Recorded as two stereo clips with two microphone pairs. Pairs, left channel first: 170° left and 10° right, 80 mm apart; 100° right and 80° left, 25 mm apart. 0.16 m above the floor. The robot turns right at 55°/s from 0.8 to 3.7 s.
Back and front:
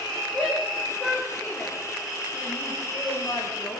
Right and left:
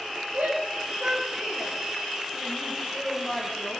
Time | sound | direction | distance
0.3 | a shout | 95° left | 9.5 m